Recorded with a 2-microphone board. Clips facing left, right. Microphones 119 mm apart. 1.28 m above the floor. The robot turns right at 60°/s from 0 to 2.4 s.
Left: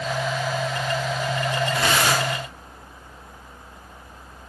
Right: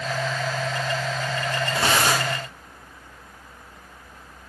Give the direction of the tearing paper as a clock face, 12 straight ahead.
5 o'clock.